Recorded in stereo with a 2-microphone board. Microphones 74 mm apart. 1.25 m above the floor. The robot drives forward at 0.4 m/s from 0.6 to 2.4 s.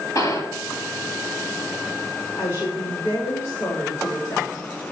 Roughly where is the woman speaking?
Left.